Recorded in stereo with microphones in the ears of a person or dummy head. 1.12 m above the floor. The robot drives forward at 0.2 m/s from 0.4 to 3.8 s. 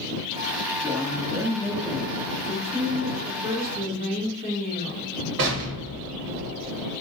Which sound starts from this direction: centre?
A woman speaking, at 0.8 s.